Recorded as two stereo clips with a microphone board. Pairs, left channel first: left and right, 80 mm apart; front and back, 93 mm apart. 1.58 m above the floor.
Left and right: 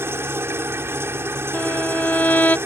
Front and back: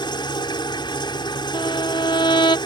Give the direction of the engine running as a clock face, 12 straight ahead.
1 o'clock.